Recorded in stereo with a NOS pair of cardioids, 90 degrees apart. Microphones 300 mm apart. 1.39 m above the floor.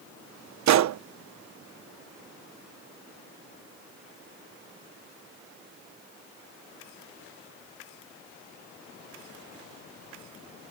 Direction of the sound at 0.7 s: 65° right.